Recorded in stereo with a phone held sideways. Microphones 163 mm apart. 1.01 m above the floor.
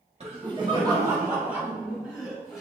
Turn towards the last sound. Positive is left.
turn(degrees=0)  # may be behind; listen again after turning